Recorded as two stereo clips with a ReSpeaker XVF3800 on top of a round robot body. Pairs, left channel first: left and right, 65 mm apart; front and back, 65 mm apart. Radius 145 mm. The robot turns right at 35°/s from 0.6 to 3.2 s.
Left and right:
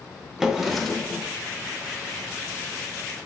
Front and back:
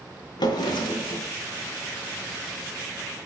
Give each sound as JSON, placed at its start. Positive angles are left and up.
{"t": 0.4, "sound": "a drawer", "azimuth_deg": -5, "distance_m": 0.7}